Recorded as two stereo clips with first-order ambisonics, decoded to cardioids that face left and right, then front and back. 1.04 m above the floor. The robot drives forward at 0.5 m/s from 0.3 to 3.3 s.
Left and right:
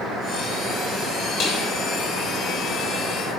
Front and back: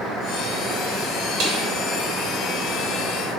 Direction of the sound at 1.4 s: 140° left.